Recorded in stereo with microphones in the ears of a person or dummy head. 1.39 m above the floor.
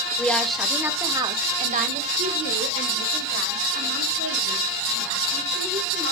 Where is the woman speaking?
10° left (ahead or behind), 2.0 m; by 6.1 s 80° right, 5.5 m.